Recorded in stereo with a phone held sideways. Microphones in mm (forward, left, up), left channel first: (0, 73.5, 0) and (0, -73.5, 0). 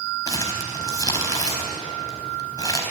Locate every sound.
0.3 s crumpling: 25° left (ahead or behind), 4 m